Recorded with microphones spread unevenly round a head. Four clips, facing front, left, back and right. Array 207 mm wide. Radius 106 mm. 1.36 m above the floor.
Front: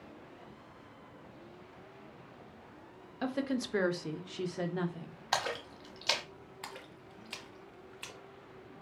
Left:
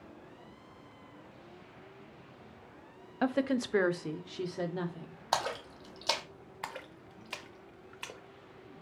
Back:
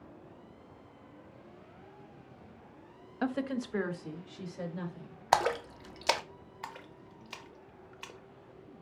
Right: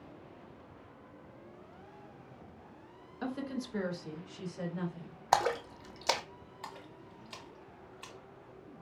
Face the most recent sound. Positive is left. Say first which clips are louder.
# left 4 dB, back 3 dB
turn(degrees=90)